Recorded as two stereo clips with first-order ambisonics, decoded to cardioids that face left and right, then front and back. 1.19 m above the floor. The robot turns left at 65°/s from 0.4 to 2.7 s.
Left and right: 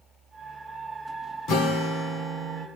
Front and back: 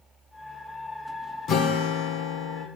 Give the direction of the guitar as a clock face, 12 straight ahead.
10 o'clock.